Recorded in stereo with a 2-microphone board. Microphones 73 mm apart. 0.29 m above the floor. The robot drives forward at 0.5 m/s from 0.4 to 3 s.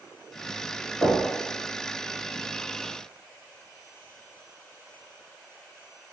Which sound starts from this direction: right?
Knocking, at 1.0 s.